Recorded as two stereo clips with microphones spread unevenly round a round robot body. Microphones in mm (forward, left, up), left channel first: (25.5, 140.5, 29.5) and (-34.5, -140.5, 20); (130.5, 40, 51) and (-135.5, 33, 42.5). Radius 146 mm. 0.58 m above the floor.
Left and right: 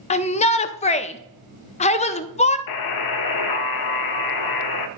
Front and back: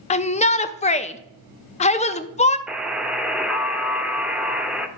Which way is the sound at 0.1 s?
35° left.